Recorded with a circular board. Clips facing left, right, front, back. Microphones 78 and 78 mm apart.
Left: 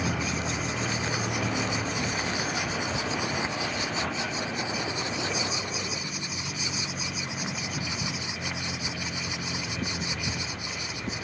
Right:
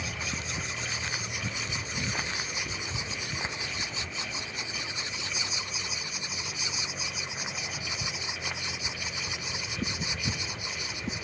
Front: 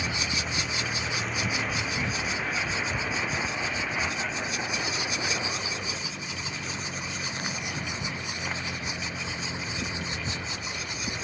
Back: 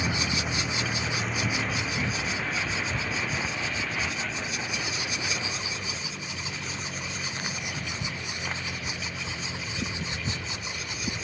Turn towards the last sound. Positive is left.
turn(degrees=60)